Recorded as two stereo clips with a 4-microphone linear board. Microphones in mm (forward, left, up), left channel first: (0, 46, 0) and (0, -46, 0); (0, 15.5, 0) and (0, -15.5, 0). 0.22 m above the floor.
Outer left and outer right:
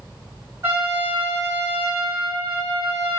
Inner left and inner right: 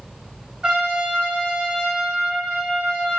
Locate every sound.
0.6 s a trumpet: 25° right (ahead or behind), 2 m